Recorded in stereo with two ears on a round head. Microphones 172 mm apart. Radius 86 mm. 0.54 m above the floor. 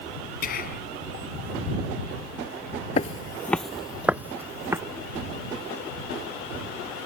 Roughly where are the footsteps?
Left.